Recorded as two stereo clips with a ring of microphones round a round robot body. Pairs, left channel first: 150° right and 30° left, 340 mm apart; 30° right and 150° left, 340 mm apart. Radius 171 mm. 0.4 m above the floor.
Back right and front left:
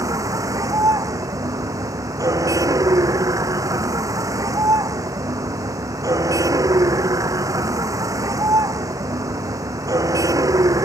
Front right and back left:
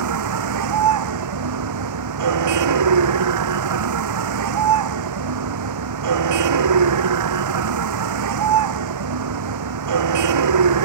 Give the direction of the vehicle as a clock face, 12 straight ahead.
8 o'clock.